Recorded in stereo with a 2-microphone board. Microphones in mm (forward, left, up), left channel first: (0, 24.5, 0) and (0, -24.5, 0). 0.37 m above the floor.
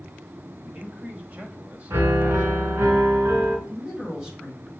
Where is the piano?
55° right (ahead or behind), 2 m.